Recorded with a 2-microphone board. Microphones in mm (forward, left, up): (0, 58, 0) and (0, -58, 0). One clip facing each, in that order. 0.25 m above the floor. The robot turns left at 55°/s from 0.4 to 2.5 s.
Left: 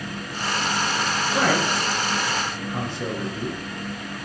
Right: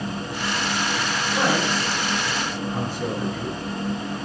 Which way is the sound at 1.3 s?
75° left (ahead or behind).